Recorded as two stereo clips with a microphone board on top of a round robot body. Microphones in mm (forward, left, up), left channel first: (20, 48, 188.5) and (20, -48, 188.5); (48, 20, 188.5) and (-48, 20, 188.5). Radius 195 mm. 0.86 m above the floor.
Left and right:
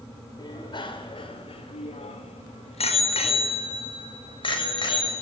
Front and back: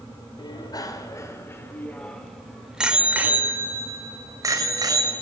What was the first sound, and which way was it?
A bicycle bell, 45° left.